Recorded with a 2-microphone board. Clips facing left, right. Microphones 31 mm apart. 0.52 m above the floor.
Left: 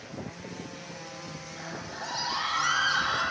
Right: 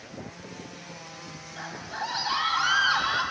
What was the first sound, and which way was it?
A scream, 30° right (ahead or behind).